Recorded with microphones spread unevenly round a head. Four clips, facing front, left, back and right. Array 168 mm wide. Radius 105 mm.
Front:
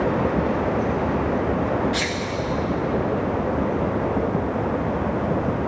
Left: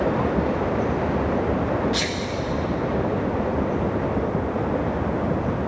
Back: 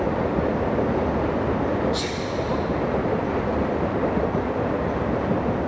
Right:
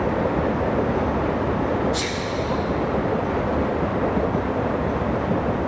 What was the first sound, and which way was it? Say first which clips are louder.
A sneeze: right 1 dB, front 1 dB; 90° left.